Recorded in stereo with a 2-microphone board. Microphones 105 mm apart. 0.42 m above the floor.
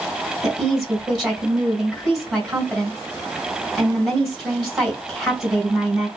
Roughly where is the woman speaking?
Centre.